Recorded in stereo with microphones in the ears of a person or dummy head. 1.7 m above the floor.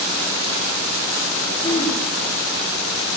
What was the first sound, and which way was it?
Throat clearing, 25° left (ahead or behind).